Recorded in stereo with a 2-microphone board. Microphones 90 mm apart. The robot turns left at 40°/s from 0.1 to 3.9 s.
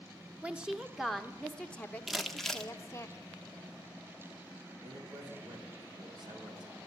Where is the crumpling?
Centre (ahead or behind), 0.8 m; by 2.7 s 5° left (ahead or behind), 0.8 m.